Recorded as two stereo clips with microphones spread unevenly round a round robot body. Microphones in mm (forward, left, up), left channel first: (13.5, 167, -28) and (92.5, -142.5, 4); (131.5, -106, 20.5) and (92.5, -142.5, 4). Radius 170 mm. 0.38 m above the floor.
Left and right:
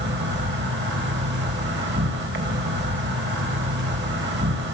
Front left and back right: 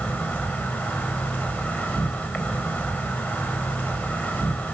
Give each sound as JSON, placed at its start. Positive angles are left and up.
{"t": 0.0, "sound": "an insect", "azimuth_deg": -20, "distance_m": 3.0}